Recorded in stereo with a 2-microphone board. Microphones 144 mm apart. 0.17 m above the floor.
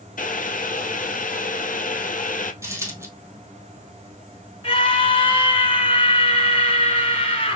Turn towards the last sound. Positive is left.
turn(degrees=40)  # may be behind; listen again after turning